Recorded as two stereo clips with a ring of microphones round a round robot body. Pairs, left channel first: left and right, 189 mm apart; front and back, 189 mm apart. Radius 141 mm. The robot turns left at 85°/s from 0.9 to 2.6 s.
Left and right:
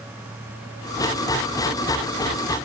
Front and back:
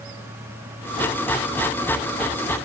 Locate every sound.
Only background noise.